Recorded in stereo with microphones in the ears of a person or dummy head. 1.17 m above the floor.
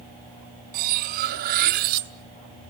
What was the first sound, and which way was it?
Cutlery clinking, 50° right (ahead or behind).